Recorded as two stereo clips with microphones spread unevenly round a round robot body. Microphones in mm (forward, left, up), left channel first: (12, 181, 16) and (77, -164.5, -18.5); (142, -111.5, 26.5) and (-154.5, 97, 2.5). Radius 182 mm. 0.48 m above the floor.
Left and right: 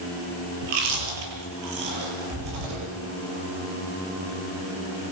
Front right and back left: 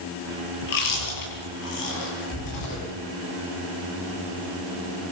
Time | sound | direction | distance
0.6 | chewing | 70° right | 8.5 m